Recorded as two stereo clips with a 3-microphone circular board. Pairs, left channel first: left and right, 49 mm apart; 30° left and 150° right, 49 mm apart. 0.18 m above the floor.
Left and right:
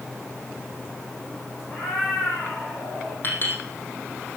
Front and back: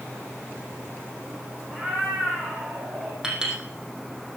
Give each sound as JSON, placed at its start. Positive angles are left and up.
{"t": 1.7, "sound": "a cat meowing", "azimuth_deg": 150, "distance_m": 5.0}
{"t": 3.2, "sound": "a clink", "azimuth_deg": 135, "distance_m": 4.5}